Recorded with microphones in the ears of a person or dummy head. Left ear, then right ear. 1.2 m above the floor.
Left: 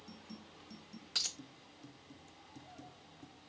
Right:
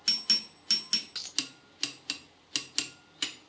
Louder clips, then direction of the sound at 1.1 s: Right 2 dB; centre (ahead or behind).